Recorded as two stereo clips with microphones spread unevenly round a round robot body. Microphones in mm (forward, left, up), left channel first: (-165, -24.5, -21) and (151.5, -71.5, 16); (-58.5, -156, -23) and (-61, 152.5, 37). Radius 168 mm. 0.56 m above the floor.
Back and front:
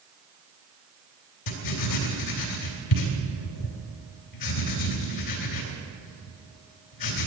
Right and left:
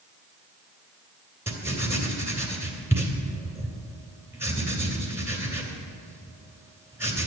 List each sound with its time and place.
1.5 s writing: 175° left, 2.5 m